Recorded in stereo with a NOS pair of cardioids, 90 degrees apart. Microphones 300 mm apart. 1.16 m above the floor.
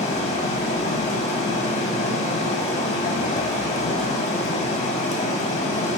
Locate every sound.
0.0 s running water: 25° left, 2 m